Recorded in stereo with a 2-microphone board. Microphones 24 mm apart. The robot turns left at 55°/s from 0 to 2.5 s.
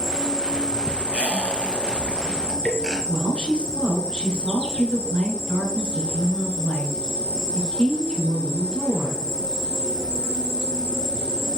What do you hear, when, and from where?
0.0 s an insect: 170° left, 2.5 m; by 11.6 s 30° left, 2.5 m
1.1 s a squeak: 75° right (ahead or behind), 2 m; by 3.0 s 10° right (ahead or behind), 2 m
3.1 s a woman speaking: 35° left (ahead or behind), 2.5 m